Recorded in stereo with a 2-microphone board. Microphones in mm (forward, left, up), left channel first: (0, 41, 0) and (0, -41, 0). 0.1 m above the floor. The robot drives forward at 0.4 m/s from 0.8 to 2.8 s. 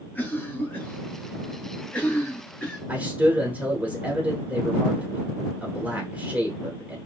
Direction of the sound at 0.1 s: 25° left (ahead or behind).